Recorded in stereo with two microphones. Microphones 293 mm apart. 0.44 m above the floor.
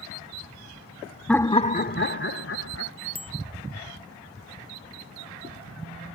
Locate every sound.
1.3 s laughter: centre (ahead or behind); by 2.9 s 55° left (ahead or behind)
3.1 s a bicycle bell: 20° right (ahead or behind)